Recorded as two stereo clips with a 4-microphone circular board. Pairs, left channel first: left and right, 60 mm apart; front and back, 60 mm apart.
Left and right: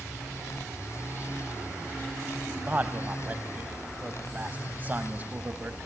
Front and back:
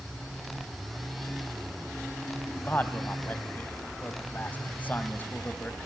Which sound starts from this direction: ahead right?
A man speaking, at 2.6 s.